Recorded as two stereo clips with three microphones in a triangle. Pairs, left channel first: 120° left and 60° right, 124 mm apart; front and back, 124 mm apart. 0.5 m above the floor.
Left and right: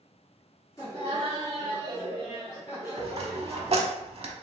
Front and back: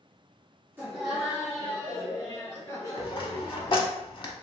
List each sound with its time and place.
0.8 s laughter: 135° left, 1.0 m; by 4.0 s 55° left, 2.0 m
3.0 s a dropped coin: 40° right, 0.6 m